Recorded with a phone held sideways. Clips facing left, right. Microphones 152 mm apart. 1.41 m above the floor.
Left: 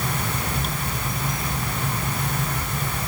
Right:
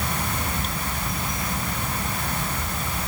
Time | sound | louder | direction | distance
0.0 | a fan | left 1 dB | 75° left (ahead or behind) | 4.5 m